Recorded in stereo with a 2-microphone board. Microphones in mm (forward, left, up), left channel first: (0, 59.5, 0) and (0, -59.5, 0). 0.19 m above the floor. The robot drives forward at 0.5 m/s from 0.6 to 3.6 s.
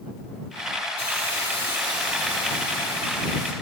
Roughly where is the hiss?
Right.